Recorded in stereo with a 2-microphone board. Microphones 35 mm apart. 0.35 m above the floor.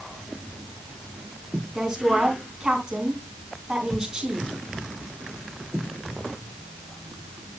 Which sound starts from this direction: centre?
A woman speaking, at 1.8 s.